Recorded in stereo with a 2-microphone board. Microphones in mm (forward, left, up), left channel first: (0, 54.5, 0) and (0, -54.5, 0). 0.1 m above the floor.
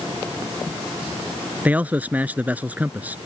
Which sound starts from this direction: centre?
A man speaking, at 1.6 s.